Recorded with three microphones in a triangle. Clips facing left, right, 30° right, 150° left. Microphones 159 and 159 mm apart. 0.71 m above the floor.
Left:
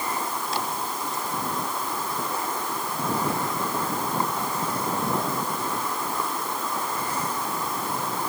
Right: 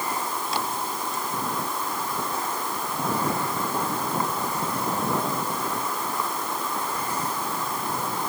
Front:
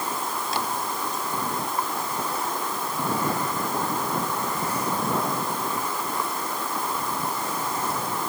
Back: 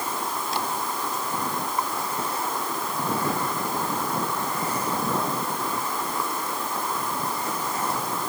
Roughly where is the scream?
I don't hear a scream.